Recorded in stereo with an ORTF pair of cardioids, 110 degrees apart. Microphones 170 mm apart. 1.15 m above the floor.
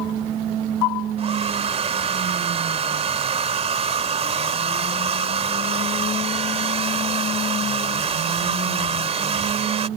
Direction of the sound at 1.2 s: 40° right.